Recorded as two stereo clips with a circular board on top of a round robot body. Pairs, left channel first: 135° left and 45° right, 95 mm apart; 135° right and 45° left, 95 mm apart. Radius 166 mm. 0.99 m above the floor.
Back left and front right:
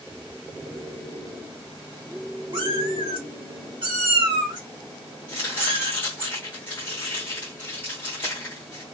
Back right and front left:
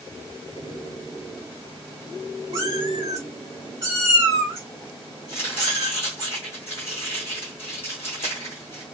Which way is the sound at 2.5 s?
5° right.